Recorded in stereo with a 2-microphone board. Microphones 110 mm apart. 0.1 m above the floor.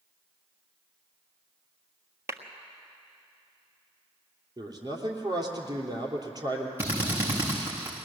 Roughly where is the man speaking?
Right.